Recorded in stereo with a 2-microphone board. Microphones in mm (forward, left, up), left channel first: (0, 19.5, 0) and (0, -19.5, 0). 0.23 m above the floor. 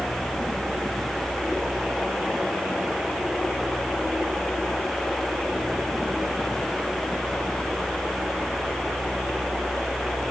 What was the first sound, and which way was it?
Only background noise.